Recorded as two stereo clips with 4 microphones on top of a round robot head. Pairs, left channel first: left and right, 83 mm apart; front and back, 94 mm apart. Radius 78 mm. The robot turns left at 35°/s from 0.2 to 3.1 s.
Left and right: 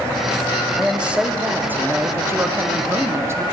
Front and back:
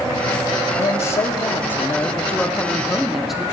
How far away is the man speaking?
About 0.7 m.